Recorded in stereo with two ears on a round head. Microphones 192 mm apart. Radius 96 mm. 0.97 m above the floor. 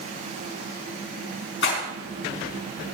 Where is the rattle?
60° left (ahead or behind), 5 m.